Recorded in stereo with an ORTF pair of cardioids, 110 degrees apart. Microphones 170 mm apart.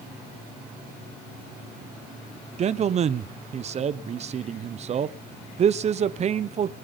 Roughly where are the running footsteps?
No running footsteps in this recording.